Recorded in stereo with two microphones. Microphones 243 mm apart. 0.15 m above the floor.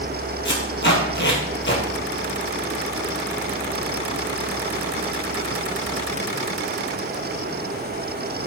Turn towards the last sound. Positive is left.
turn(degrees=50)  # may be behind; listen again after turning